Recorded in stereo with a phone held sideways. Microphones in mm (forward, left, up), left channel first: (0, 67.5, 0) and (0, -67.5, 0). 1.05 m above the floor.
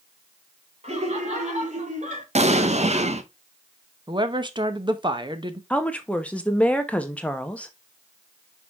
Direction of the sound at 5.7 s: 10° left (ahead or behind).